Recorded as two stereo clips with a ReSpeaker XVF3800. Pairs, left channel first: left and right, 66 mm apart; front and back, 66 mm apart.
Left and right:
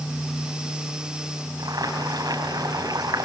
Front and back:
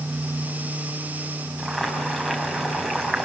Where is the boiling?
90° right, 6 m.